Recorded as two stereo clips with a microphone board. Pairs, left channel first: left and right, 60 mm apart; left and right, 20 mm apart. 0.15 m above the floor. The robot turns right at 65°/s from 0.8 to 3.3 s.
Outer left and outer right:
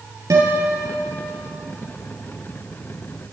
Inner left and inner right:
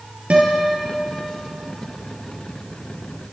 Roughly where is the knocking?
No knocking in this recording.